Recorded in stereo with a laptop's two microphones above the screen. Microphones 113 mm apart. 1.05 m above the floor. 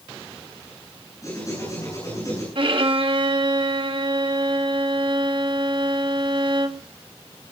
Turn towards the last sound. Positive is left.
turn(degrees=-55)  # may be behind; listen again after turning